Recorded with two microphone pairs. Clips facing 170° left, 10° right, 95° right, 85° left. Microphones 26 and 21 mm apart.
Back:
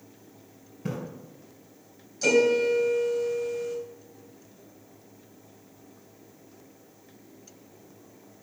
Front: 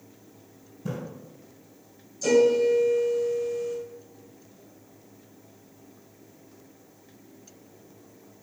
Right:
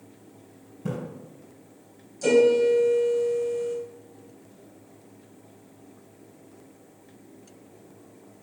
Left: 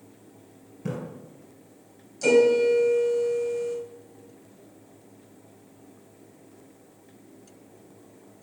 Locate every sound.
0.8 s a splash: 150° left, 3.5 m
2.2 s a piano: 145° left, 3 m